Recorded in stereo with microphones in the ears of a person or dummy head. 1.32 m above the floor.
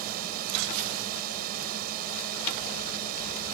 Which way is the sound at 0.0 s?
55° right (ahead or behind).